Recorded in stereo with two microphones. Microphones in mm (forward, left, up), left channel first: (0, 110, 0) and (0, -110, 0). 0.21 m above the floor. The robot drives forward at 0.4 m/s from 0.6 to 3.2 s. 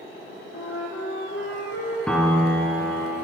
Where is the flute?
75° left (ahead or behind), 1.5 m; by 2.0 s 60° left (ahead or behind), 1.7 m.